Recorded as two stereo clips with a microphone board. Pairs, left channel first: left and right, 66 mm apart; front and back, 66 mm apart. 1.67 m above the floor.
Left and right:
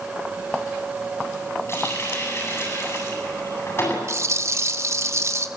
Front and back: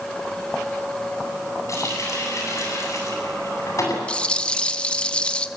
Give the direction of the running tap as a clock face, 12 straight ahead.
11 o'clock.